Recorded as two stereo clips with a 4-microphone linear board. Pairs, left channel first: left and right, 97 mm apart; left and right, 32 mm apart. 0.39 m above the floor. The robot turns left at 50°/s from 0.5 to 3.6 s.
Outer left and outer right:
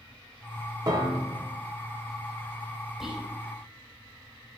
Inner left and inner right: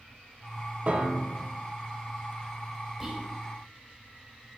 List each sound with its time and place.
0.9 s a piano: 45° right (ahead or behind), 0.8 m; by 1.4 s 55° right (ahead or behind), 0.8 m
3.0 s whispering: 5° right (ahead or behind), 2.5 m; by 3.3 s 15° right (ahead or behind), 2.5 m